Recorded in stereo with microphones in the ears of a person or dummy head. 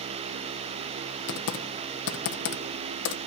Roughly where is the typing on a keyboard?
Left.